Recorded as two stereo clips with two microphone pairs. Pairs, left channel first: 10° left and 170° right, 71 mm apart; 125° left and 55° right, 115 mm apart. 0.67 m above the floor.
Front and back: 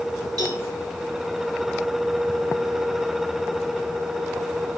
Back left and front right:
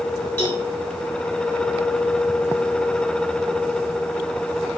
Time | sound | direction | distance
0.4 | a cowbell | 165° right | 2.5 m